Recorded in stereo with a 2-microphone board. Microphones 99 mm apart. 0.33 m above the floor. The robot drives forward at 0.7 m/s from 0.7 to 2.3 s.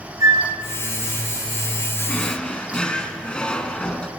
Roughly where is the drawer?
Centre.